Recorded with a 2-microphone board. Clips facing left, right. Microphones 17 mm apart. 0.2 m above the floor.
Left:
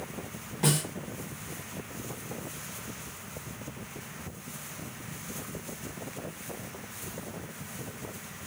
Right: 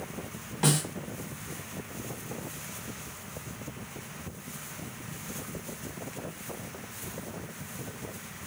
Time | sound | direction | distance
0.6 | a snare drum | 25° right (ahead or behind) | 1.2 m